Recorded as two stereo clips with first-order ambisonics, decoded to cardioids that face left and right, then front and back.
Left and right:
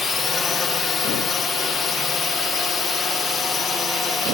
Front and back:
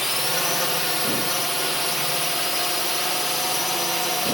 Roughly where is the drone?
Left.